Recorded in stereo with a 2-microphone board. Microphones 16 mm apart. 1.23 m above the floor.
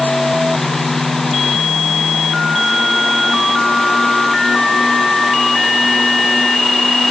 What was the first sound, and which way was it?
Only background noise.